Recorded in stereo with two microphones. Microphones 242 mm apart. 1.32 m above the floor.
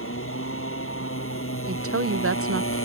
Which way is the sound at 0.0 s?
60° left (ahead or behind).